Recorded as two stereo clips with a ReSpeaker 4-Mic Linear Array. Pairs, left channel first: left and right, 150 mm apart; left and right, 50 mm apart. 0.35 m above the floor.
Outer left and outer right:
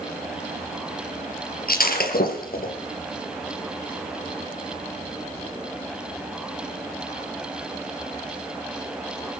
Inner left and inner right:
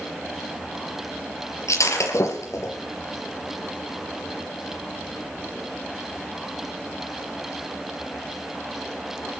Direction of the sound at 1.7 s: 80° left.